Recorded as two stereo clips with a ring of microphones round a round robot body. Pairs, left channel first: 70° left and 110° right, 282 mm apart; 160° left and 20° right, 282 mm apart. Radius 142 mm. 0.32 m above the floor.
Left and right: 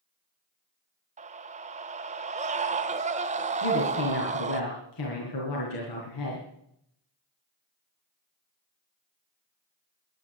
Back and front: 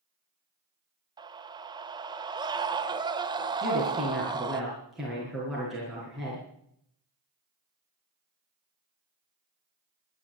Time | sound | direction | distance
1.2 | a scream | 80° right | 1.2 m
3.6 | a woman speaking | 65° left | 5.5 m